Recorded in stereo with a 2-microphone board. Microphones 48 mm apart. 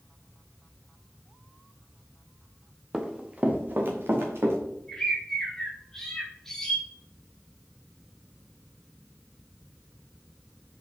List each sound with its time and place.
2.9 s running footsteps: 5° right (ahead or behind), 1.3 m; by 4.6 s 60° right (ahead or behind), 2.5 m
4.9 s a bird: 10° left (ahead or behind), 1.5 m